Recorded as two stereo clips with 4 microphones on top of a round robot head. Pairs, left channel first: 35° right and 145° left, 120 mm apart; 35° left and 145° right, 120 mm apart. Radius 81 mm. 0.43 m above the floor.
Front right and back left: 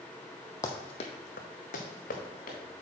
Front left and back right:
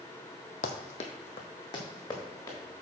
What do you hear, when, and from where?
0.6 s running footsteps: 30° left, 0.8 m; by 2.6 s 25° right, 2.5 m